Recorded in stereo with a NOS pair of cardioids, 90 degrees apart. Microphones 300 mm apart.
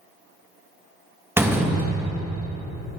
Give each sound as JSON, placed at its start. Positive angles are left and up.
{"t": 1.4, "sound": "a door slam", "azimuth_deg": -5, "distance_m": 1.7}